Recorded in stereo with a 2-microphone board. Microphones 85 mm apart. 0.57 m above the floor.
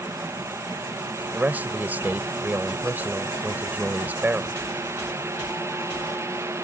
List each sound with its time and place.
1.3 s a man speaking: 20° right (ahead or behind)